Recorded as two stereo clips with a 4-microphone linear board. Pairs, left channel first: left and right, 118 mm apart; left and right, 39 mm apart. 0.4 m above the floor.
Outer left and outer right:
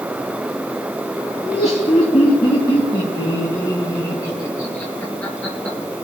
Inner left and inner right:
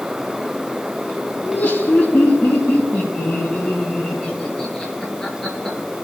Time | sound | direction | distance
1.4 | laughter | 55° left (ahead or behind) | 4.5 m